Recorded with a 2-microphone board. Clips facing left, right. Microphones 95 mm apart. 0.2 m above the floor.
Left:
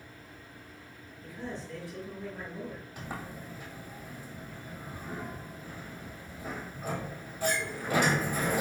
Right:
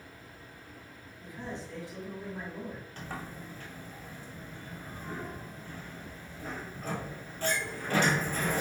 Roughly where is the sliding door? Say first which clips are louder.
Left 1 dB; centre.